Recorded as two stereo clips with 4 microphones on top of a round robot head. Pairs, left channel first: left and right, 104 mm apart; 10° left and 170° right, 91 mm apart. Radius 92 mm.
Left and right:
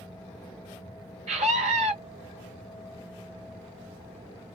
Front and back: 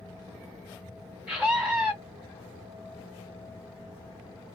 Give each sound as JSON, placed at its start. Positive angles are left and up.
{"t": 1.3, "sound": "a scream", "azimuth_deg": -85, "distance_m": 2.5}